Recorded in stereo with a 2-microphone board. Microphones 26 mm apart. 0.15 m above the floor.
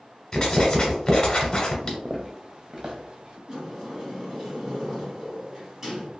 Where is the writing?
20° left (ahead or behind), 1.2 m.